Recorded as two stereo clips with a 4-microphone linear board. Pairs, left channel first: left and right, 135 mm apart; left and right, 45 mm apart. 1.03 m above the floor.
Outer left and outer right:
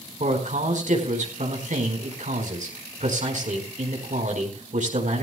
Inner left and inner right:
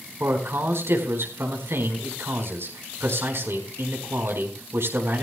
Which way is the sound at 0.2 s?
70° right (ahead or behind).